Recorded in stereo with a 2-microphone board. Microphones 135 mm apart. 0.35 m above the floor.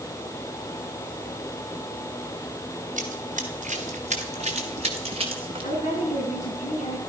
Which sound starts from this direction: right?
Running footsteps, at 3.0 s.